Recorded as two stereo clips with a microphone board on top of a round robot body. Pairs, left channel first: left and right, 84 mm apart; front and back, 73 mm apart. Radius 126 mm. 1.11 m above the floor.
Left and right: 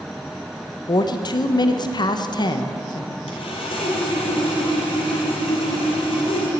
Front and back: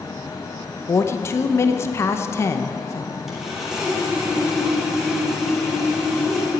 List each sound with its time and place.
0.9 s a woman speaking: 55° left, 0.9 m
3.3 s sawing: 95° left, 3 m